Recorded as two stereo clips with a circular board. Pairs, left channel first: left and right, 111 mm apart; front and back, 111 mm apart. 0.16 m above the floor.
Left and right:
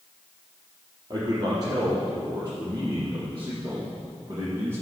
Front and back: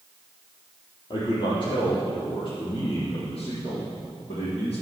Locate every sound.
1.1 s a man speaking: 40° right, 4.5 m; by 4.8 s 30° right, 6.5 m